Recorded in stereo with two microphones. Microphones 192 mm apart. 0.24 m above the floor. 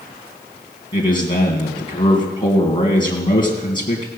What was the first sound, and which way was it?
A man speaking, 25° left (ahead or behind).